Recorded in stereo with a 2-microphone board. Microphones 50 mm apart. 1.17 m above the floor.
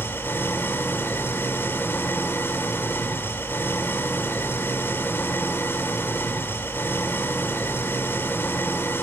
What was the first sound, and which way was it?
An engine running, 50° left (ahead or behind).